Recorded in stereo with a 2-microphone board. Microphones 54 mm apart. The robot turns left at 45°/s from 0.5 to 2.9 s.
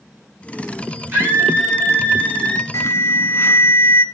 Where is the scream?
140° right, 6.5 m; by 2.6 s 150° left, 6.5 m.